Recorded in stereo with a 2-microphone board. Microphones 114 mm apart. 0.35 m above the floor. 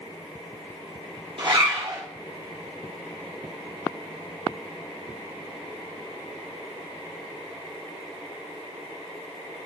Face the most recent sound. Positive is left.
turn(degrees=-50)  # may be behind; listen again after turning